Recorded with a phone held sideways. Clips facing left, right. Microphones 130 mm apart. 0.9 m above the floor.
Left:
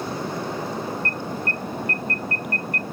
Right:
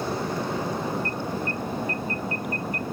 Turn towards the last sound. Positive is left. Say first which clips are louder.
# even
turn(degrees=70)  # may be behind; listen again after turning